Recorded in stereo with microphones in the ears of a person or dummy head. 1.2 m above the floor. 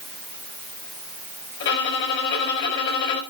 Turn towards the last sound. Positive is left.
turn(degrees=70)  # may be behind; listen again after turning